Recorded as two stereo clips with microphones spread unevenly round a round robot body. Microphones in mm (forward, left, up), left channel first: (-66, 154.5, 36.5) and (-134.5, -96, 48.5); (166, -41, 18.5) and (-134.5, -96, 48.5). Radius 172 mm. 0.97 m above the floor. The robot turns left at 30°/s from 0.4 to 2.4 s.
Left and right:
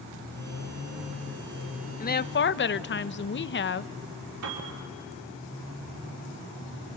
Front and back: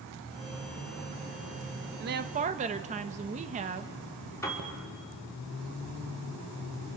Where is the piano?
70° right, 3.5 m.